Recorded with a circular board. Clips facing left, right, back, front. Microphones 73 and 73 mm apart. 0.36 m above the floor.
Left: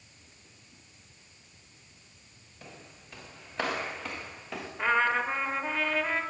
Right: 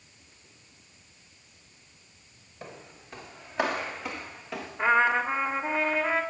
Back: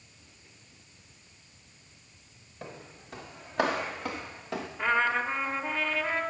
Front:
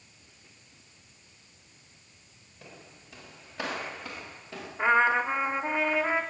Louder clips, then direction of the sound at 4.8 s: Right 3 dB, front 4 dB; 30° right.